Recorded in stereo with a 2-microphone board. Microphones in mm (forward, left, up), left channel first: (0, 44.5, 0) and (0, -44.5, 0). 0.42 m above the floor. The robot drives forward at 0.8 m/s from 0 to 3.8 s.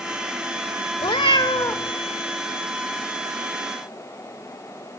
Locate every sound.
1.0 s a cat meowing: 70° left (ahead or behind), 0.7 m; by 1.9 s 35° left (ahead or behind), 1.1 m